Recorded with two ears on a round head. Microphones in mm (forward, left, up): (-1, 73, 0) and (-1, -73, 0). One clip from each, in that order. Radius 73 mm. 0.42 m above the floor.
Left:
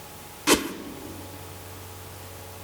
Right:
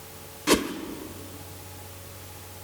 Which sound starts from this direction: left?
A whoosh, at 0.5 s.